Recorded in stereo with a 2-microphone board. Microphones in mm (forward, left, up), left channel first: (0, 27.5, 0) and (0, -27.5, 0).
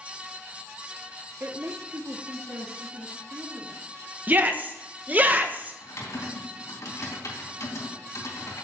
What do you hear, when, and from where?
1.4 s a woman speaking: 45° right (ahead or behind), 0.7 m; by 4.1 s 65° right (ahead or behind), 3.5 m
4.3 s a shout: 30° right (ahead or behind), 0.9 m
5.8 s typing on a keyboard: 80° left, 3.5 m